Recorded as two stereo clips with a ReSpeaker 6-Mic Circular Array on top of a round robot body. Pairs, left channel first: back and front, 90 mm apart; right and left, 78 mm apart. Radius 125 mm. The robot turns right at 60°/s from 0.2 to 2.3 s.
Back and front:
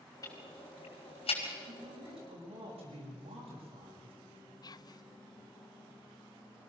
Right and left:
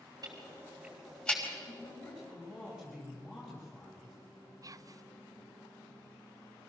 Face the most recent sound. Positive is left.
turn(degrees=135)